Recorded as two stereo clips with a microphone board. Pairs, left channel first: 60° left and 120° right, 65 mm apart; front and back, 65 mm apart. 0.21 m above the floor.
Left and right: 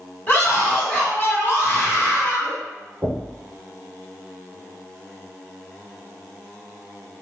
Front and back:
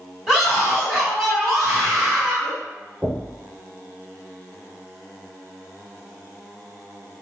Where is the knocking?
120° right, 0.8 m.